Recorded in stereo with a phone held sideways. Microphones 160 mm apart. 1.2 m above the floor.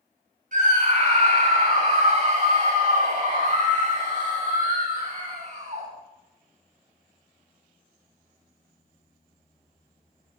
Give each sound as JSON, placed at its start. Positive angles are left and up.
{"t": 0.5, "sound": "a scream", "side_deg": -55, "distance_m": 8.5}